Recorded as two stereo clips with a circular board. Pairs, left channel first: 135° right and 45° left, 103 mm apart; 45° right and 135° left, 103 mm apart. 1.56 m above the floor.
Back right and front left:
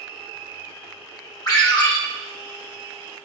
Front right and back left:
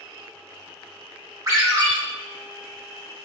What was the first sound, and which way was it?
A ringtone, 175° right.